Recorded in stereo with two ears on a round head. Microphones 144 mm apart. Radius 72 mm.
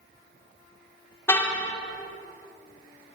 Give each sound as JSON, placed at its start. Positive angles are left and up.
{"t": 1.3, "sound": "a car horn", "side_deg": 15, "distance_m": 3.0}